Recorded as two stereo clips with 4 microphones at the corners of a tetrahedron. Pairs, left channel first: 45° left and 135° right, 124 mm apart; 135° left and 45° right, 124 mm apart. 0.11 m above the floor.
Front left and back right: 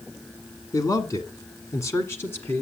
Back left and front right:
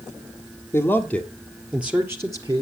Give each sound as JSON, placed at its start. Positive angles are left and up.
{"t": 0.7, "sound": "a man speaking", "azimuth_deg": 80, "distance_m": 1.6}